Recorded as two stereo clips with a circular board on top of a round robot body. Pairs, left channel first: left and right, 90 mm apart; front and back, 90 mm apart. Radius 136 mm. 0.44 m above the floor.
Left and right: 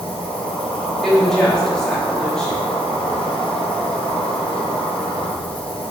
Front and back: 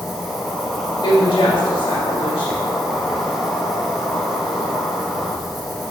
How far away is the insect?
About 1.3 m.